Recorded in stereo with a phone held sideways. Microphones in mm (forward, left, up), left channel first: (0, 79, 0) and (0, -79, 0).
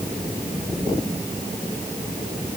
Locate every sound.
Only background noise.